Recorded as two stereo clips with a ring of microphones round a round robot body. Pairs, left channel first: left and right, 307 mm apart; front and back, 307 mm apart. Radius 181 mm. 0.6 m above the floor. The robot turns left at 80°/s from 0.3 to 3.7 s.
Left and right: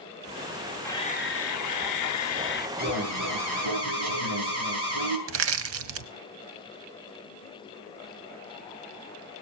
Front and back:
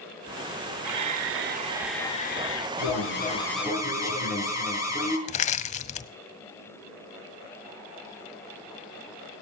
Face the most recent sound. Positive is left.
turn(degrees=-60)